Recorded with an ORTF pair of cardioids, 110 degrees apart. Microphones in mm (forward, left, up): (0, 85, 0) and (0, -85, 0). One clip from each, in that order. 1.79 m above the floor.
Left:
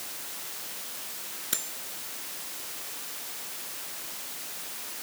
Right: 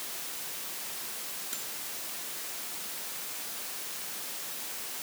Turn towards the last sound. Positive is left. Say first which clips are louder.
# left 10 dB
turn(degrees=60)